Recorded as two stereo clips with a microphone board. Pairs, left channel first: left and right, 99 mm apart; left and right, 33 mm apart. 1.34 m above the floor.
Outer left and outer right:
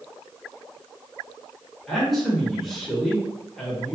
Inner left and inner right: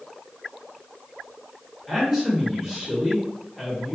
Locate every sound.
1.9 s a man speaking: centre (ahead or behind), 1.6 m